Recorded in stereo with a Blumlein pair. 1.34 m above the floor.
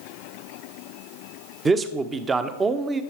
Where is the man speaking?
20° right, 0.9 m.